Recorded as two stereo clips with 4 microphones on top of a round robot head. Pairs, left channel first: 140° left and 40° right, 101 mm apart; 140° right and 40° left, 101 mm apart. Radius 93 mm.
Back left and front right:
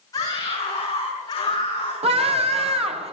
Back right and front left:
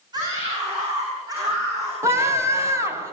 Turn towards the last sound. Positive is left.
turn(degrees=-25)